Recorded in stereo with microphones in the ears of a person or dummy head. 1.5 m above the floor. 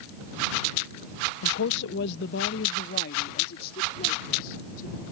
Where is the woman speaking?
65° left (ahead or behind); by 5.0 s 50° left (ahead or behind).